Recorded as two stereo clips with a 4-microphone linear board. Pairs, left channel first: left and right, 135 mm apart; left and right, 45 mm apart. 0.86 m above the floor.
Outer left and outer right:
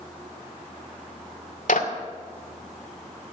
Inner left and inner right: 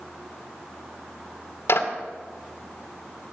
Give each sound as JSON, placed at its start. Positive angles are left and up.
{"t": 1.7, "sound": "a clap", "side_deg": 80, "distance_m": 2.0}